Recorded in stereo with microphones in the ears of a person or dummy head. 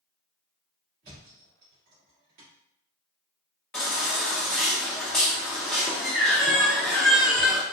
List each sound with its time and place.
1.0 s a thud: 50° right (ahead or behind), 1.6 m
3.7 s a baby crying: 5° left (ahead or behind), 0.5 m